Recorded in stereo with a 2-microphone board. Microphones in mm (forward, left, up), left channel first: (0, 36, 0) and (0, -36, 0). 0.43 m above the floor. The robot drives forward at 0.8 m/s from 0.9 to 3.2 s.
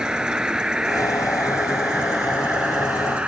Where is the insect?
10° right (ahead or behind); by 3.3 s 15° right (ahead or behind).